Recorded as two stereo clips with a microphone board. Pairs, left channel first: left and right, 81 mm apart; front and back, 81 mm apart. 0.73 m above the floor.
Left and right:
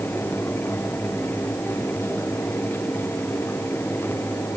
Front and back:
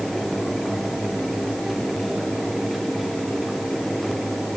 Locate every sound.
Only background noise.